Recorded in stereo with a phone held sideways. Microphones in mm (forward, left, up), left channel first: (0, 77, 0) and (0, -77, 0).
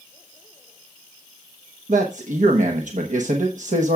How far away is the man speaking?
About 1.0 m.